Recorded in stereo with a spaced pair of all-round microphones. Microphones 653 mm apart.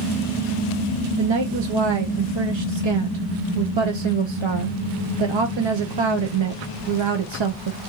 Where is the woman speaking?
50° right (ahead or behind), 0.5 m.